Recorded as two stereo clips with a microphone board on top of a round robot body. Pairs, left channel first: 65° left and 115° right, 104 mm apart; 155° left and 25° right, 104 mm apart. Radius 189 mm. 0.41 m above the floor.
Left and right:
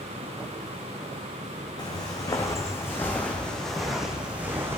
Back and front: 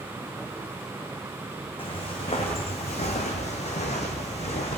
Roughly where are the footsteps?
Behind left.